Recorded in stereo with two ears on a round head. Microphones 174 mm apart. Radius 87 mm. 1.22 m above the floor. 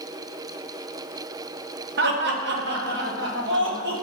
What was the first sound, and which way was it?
Laughter, 55° right (ahead or behind).